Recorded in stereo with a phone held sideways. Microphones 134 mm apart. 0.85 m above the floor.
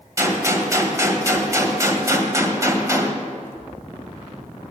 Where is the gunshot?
25° right (ahead or behind), 1.7 m.